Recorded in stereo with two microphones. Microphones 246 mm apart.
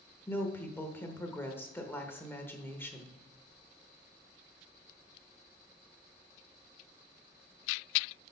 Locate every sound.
0.3 s a woman speaking: 10° left (ahead or behind), 1.1 m